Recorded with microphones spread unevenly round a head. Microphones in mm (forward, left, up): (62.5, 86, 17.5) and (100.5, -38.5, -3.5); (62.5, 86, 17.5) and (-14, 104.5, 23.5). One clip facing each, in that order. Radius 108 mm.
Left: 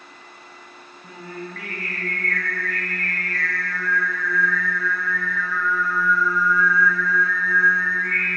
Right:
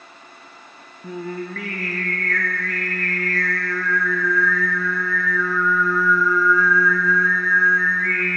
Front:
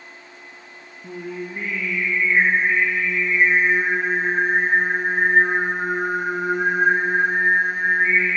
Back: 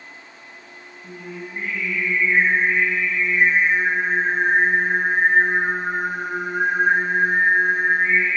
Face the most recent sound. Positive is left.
turn(degrees=-65)